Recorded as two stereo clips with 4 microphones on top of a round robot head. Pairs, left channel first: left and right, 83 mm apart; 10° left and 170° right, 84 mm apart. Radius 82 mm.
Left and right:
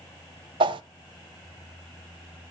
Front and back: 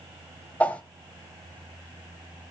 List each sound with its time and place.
0.6 s a whoosh: 70° right, 0.8 m